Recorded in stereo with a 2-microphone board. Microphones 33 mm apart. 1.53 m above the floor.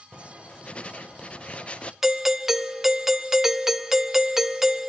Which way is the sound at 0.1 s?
35° left (ahead or behind).